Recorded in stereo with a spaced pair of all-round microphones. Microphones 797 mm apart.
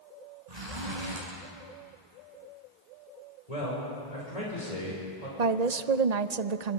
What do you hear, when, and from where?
0.5 s a zipper: 55° right (ahead or behind), 7 m
3.5 s a man speaking: 50° left (ahead or behind), 5.5 m
5.4 s a woman speaking: 55° right (ahead or behind), 0.8 m